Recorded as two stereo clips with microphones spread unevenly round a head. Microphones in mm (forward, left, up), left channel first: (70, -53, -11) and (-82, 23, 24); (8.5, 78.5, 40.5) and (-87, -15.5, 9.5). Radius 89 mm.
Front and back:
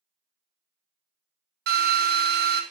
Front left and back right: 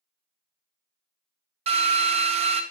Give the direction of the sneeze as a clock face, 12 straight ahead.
No sneeze in this recording.